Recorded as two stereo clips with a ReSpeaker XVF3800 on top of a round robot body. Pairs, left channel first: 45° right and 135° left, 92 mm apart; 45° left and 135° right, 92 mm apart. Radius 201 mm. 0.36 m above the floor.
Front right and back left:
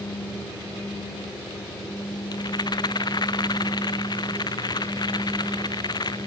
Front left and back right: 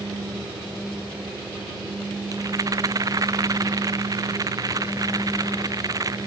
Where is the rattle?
85° right.